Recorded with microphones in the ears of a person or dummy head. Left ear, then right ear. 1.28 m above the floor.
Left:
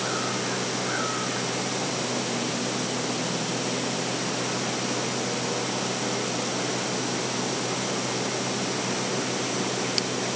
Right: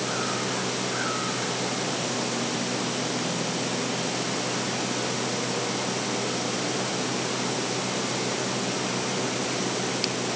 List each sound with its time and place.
Only background noise.